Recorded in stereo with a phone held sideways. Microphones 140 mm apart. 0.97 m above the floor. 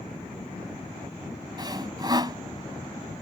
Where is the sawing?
30° right (ahead or behind).